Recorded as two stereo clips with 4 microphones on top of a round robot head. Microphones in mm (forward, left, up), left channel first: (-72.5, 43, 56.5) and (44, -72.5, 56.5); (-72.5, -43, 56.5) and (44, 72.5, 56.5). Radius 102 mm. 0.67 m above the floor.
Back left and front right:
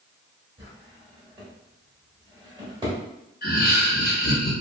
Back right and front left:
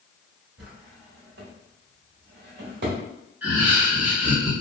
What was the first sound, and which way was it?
A drawer, 20° left.